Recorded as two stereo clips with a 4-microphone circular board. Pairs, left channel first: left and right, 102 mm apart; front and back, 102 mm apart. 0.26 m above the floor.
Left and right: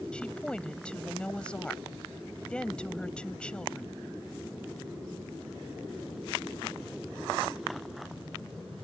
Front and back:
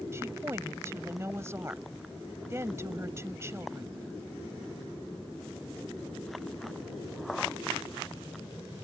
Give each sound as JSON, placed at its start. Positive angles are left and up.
{"t": 0.1, "sound": "a woman speaking", "azimuth_deg": 160}